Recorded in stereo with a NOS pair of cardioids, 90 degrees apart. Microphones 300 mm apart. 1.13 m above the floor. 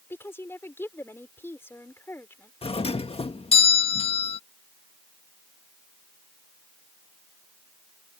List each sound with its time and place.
0.1 s a woman speaking: 10° left
2.6 s a doorbell: 20° left